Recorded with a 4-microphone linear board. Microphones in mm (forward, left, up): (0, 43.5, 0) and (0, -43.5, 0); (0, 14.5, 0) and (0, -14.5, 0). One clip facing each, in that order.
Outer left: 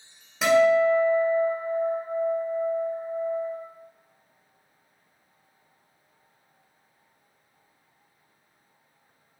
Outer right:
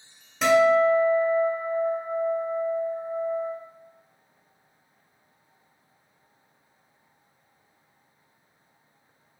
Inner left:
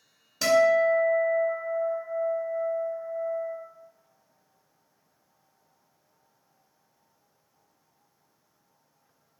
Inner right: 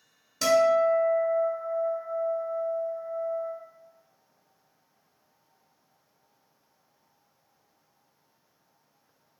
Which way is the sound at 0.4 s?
5° left (ahead or behind).